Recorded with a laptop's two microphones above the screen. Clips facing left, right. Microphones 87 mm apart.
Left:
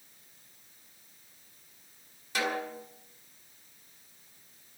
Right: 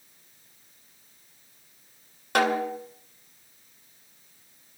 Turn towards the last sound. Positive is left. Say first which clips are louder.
# right 9 dB
turn(degrees=-65)  # may be behind; listen again after turning